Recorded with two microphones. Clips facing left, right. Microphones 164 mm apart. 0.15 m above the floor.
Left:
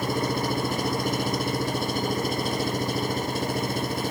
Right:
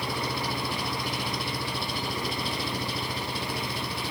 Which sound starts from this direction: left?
An engine running, at 0.0 s.